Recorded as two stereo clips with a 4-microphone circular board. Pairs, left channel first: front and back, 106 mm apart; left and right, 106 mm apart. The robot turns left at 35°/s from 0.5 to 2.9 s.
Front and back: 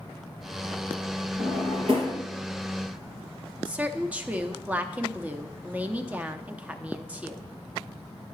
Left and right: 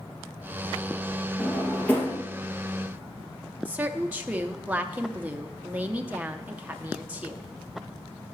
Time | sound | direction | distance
1.4 | a drawer | straight behind | 2.5 m
3.6 | a woman speaking | 135° right | 0.6 m